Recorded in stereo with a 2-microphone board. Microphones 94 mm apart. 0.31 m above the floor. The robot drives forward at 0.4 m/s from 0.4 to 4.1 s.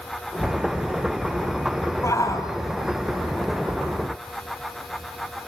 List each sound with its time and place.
2.0 s a shout: 35° left (ahead or behind), 1.9 m